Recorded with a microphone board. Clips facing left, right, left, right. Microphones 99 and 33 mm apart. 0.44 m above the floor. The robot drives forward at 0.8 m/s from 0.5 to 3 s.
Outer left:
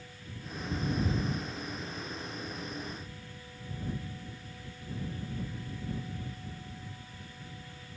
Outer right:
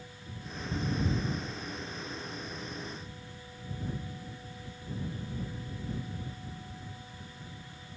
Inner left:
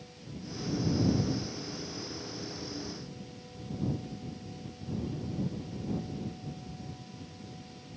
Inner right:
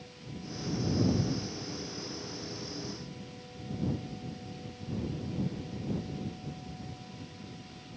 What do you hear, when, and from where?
Only background noise.